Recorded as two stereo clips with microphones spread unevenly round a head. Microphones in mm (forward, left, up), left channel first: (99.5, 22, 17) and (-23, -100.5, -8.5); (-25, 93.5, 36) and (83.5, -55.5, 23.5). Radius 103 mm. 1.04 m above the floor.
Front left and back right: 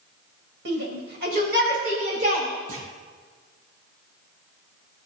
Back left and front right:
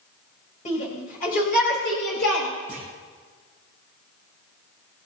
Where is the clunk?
135° right, 8 m.